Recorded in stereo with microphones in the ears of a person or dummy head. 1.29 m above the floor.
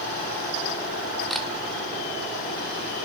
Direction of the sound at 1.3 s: Centre (ahead or behind).